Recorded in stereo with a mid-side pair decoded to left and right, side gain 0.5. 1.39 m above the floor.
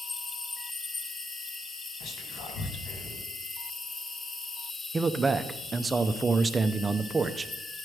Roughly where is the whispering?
Ahead left.